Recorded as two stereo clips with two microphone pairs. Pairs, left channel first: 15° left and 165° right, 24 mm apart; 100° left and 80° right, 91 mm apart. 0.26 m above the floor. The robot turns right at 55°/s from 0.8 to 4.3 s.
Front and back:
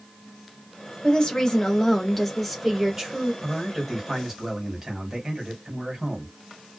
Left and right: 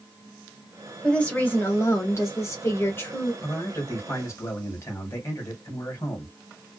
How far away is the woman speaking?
About 1.0 m.